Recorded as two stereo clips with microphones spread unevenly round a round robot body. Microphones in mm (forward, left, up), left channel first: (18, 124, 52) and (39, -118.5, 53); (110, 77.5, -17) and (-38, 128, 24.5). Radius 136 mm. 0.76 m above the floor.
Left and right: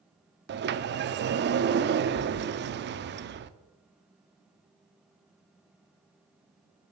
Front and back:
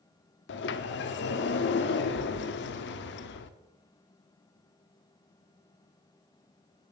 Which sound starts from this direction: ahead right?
A sliding door, at 0.5 s.